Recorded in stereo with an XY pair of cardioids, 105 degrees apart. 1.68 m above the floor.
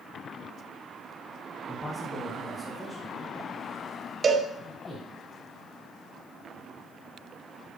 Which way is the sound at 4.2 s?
40° right.